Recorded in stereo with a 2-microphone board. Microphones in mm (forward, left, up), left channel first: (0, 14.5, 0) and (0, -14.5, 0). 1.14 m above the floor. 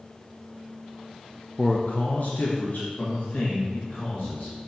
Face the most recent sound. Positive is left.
turn(degrees=75)  # may be behind; listen again after turning